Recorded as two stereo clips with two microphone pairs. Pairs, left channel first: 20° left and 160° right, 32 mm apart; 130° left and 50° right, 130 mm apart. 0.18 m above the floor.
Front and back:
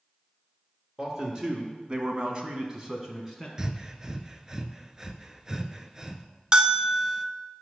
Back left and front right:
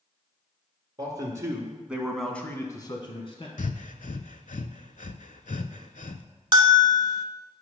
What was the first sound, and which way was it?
A man speaking, 105° right.